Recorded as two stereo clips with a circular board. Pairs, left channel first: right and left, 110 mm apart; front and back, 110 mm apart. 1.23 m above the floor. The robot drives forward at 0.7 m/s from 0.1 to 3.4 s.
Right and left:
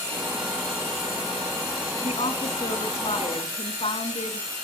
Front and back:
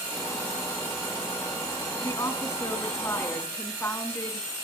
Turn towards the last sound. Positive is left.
turn(degrees=-70)